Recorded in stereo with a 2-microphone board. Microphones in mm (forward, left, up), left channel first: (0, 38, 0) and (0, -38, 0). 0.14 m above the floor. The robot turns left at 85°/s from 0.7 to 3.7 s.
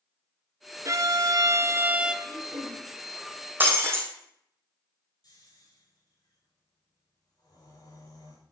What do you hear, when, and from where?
0.8 s a violin: 60° right, 0.6 m; by 2.1 s 170° right, 0.6 m
2.2 s throat clearing: 50° right, 3 m; by 2.8 s 100° right, 3 m
3.6 s breaking glass: 25° right (ahead or behind), 2.5 m; by 4.1 s 35° right (ahead or behind), 2.5 m
5.2 s snoring: 55° left (ahead or behind), 5 m